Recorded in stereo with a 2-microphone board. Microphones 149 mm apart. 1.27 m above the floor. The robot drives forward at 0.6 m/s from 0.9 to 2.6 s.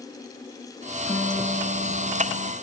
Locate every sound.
1.0 s a guitar: 25° left (ahead or behind), 1.2 m; by 2.5 s 65° left (ahead or behind), 0.6 m